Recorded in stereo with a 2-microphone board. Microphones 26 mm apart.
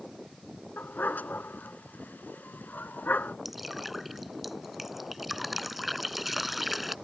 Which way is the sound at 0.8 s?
85° left.